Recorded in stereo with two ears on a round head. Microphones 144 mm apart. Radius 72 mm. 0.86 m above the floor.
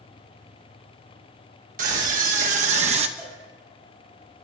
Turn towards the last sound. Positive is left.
turn(degrees=-10)  # may be behind; listen again after turning